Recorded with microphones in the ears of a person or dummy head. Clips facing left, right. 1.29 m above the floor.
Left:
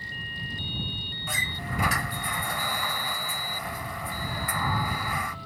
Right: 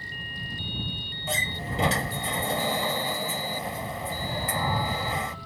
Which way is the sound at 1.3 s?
25° right (ahead or behind).